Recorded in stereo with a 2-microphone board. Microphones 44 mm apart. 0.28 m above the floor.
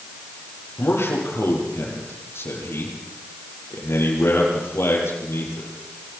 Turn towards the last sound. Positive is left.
turn(degrees=70)  # may be behind; listen again after turning